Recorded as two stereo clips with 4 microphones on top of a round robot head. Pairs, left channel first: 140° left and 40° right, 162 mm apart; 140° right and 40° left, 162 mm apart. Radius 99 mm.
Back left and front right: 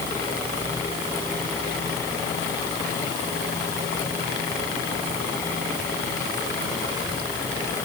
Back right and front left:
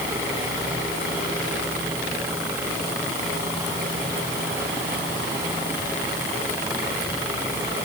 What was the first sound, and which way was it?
Only background noise.